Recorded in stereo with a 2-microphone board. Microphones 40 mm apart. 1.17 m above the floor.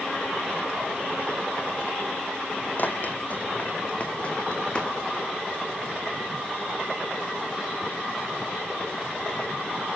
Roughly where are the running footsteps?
Left.